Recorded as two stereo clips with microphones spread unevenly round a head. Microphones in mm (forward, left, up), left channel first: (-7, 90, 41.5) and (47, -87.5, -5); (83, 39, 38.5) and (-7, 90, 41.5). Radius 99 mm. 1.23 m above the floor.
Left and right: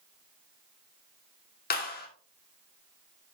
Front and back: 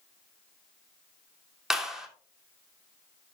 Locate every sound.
1.7 s a clap: 65° left, 3 m